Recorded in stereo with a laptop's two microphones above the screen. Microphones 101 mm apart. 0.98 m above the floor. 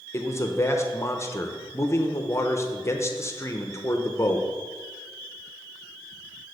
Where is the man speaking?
25° left (ahead or behind), 0.6 m.